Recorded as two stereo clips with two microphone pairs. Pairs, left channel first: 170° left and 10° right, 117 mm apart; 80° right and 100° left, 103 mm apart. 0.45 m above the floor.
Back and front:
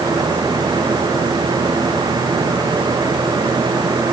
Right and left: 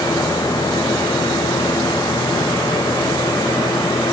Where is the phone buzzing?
I don't hear a phone buzzing.